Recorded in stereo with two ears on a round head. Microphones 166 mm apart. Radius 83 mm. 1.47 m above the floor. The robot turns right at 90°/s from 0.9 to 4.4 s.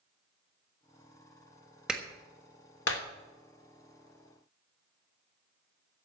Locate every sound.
1.9 s a clap: 5° right (ahead or behind), 1.4 m; by 3.0 s 65° left (ahead or behind), 1.4 m